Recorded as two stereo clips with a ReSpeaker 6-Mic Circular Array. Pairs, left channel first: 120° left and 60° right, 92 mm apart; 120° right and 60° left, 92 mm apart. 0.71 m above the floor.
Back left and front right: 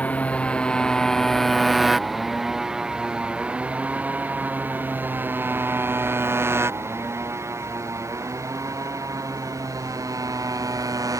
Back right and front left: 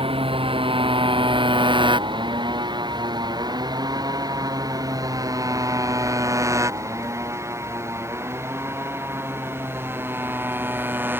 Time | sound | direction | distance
0.0 | a motorcycle | 45° left | ?